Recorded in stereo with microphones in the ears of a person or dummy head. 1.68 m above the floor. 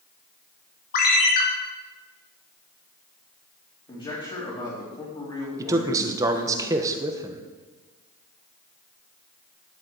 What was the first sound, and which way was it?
A ringtone, 55° left (ahead or behind).